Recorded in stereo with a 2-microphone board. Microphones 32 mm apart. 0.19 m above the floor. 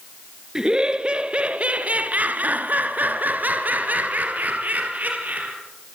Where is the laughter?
25° right (ahead or behind), 2.5 m; by 5.5 s 55° right (ahead or behind), 4.5 m.